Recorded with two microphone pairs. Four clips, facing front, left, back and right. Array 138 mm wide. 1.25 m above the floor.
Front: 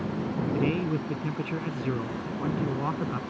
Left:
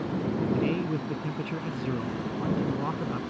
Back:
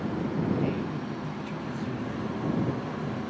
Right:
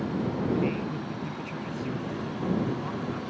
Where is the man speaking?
30° left.